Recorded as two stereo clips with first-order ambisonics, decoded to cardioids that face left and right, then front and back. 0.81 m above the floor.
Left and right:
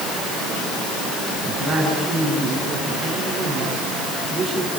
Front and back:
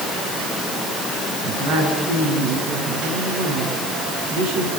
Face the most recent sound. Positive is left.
turn(degrees=-165)